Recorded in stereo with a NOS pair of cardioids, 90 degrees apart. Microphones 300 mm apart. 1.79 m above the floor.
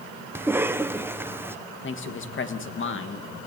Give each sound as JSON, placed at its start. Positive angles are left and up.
{"t": 0.3, "sound": "a cough", "azimuth_deg": -5, "distance_m": 1.3}
{"t": 1.8, "sound": "a man speaking", "azimuth_deg": 40, "distance_m": 3.0}